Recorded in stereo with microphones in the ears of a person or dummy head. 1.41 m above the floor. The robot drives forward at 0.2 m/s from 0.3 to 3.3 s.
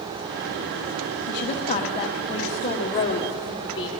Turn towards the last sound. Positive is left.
turn(degrees=20)  # may be behind; listen again after turning